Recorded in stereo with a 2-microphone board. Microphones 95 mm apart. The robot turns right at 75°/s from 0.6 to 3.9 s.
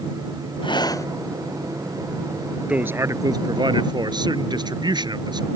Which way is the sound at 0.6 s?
115° left.